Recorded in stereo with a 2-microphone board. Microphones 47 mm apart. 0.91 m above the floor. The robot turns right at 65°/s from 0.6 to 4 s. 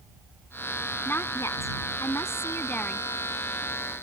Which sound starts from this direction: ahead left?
A woman speaking, at 1.1 s.